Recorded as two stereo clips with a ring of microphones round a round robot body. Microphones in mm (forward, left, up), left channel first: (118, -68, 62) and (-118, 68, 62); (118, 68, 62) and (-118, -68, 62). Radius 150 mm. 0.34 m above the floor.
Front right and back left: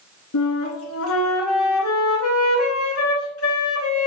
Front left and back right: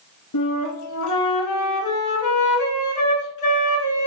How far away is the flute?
About 1.9 m.